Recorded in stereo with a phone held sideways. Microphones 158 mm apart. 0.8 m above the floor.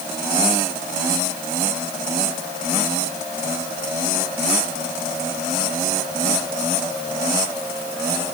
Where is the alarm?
I don't hear an alarm.